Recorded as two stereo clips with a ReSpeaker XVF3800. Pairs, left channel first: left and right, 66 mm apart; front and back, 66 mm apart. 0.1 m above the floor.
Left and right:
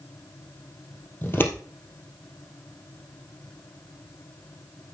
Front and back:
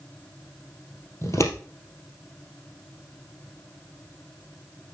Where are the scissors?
35° left, 2.5 m.